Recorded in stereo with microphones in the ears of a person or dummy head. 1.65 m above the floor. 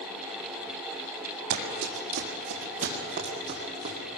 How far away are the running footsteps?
About 3.5 m.